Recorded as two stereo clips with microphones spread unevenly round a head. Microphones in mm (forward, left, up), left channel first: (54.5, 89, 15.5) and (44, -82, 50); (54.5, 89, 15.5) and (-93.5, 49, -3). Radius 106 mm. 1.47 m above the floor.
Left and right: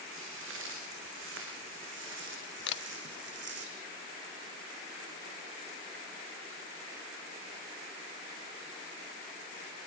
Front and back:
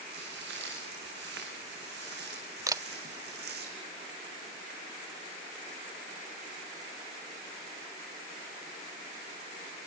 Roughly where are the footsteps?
Behind right.